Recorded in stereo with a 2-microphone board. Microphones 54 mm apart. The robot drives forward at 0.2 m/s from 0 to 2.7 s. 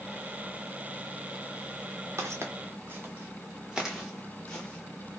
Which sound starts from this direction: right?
Footsteps, at 2.2 s.